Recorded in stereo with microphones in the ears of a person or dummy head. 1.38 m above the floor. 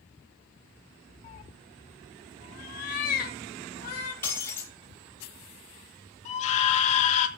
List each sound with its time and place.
1.2 s a cat meowing: 25° left (ahead or behind), 0.6 m; by 4.1 s 55° left (ahead or behind), 4 m
4.2 s breaking glass: 15° left (ahead or behind), 6 m
6.2 s a scream: 45° left (ahead or behind), 2.5 m